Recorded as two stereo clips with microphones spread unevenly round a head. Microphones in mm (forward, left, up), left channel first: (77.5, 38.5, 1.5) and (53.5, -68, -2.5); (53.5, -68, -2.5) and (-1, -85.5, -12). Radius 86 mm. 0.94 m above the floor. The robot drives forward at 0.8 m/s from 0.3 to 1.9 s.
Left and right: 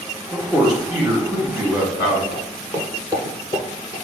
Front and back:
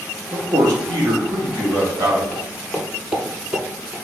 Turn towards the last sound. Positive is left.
turn(degrees=-95)